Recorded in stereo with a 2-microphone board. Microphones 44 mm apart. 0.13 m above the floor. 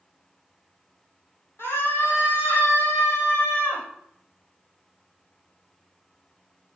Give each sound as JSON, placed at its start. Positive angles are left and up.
{"t": 1.6, "sound": "a scream", "side_deg": 65, "distance_m": 5.0}